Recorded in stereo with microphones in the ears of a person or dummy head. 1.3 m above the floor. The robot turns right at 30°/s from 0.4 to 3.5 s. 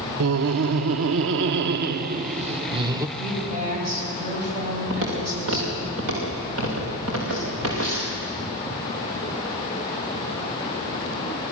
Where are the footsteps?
65° right (ahead or behind), 7.5 m; by 8.2 s 80° right, 8.5 m.